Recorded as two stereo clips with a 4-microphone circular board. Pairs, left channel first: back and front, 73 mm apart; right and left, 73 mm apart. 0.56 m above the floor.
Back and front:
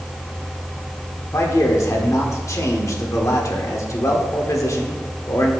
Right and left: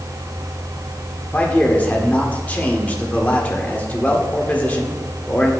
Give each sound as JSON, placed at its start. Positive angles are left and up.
{"t": 1.3, "sound": "a man speaking", "azimuth_deg": -155, "distance_m": 1.5}